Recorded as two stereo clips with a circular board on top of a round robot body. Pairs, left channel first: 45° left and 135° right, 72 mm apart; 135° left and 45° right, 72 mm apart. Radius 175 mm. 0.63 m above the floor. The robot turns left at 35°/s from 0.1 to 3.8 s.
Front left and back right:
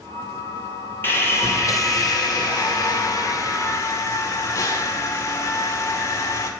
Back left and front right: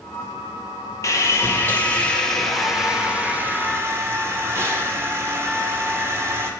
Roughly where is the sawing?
Left.